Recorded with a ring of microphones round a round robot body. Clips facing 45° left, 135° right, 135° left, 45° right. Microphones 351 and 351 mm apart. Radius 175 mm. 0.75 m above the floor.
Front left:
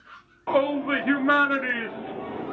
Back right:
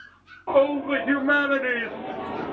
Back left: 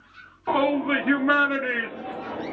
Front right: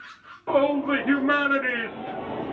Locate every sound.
0.5 s a shout: 65° left, 1.3 m; by 2.5 s 65° right, 1.0 m